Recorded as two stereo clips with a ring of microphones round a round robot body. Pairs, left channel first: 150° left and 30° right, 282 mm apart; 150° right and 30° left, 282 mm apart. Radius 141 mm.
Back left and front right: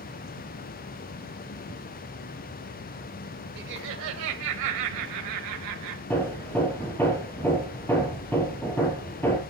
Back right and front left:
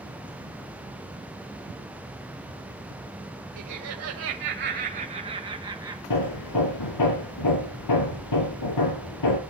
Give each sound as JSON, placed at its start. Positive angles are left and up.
{"t": 3.6, "sound": "laughter", "azimuth_deg": 20, "distance_m": 1.5}
{"t": 6.1, "sound": "hammering", "azimuth_deg": -125, "distance_m": 3.5}